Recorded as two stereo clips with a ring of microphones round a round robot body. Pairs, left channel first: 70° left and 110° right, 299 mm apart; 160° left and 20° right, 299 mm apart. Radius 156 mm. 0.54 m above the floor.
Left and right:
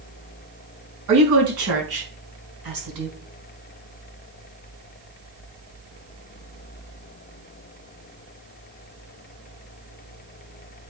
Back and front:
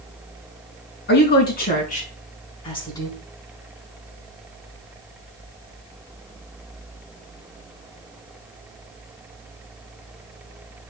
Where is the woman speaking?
145° right, 5 m; by 3.2 s 125° right, 4 m.